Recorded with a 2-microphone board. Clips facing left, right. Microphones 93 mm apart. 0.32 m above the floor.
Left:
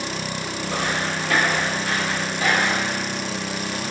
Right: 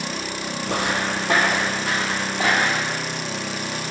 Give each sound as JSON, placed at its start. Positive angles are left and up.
{"t": 0.7, "sound": "footsteps", "side_deg": -60, "distance_m": 0.6}